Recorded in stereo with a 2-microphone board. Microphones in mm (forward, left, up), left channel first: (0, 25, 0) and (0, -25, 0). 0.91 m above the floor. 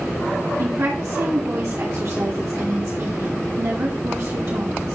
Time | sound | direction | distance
0.6 | a woman speaking | 75° right (ahead or behind) | 1.9 m